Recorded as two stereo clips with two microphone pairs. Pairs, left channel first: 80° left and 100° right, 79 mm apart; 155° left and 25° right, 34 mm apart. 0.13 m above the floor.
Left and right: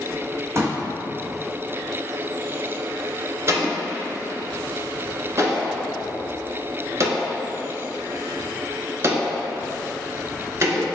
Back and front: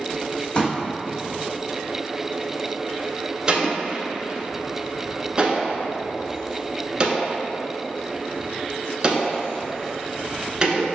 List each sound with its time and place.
0.6 s a pop: 155° right, 1.3 m
3.5 s an explosion: 80° right, 0.9 m